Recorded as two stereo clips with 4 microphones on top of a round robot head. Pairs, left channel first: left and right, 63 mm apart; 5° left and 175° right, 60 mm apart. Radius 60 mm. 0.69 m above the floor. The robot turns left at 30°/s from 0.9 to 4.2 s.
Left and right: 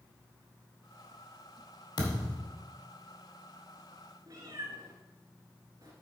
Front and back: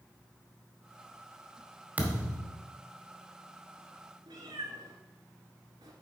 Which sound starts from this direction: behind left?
A thud, at 2.0 s.